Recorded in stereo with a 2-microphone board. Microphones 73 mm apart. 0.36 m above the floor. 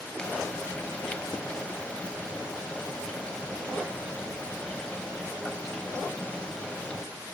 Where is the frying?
15° left (ahead or behind), 1.0 m.